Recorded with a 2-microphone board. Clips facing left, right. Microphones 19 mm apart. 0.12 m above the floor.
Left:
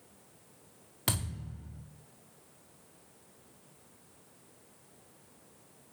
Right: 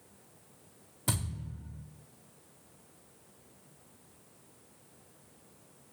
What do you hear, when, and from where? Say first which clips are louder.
1.1 s a thud: left 1 dB; 65° left (ahead or behind), 2.5 m